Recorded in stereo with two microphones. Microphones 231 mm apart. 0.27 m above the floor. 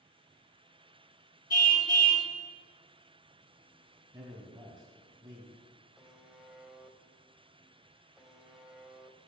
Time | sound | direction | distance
1.5 | a car horn | 15° left (ahead or behind) | 2.5 m
4.1 | a man speaking | 15° right (ahead or behind) | 2 m
6.0 | a buzzer | centre (ahead or behind) | 1.4 m